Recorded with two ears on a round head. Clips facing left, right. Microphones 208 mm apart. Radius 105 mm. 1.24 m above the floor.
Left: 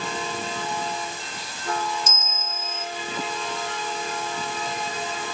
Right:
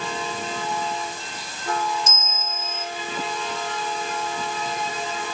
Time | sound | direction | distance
2.1 | a bell | 65° left (ahead or behind) | 3.5 m